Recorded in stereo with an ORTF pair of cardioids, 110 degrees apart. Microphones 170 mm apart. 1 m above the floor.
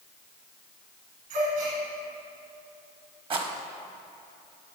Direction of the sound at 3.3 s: 35° right.